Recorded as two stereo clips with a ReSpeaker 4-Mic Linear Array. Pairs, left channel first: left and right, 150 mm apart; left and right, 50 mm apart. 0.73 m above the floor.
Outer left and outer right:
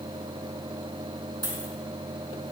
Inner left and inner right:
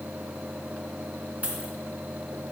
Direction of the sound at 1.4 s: 30° right (ahead or behind).